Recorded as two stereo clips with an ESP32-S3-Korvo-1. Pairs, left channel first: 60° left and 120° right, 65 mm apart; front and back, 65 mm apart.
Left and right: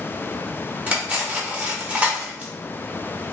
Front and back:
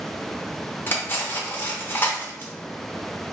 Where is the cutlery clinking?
55° right, 0.9 m.